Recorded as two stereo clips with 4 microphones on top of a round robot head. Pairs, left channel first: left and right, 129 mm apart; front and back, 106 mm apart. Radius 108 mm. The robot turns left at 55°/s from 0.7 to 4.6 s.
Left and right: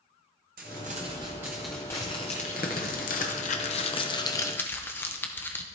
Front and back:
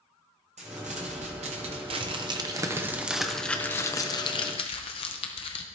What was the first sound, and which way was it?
Crumpling, 125° right.